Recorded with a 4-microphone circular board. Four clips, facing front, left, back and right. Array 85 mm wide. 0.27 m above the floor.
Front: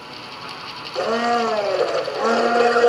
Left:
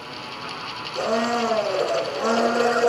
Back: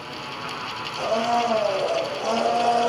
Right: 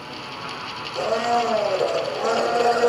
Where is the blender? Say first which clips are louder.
Right 1 dB, front 3 dB; 15° left, 1.1 m.